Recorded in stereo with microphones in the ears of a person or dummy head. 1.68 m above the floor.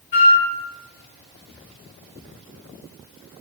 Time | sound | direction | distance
0.1 | a flute | 40° left (ahead or behind) | 0.7 m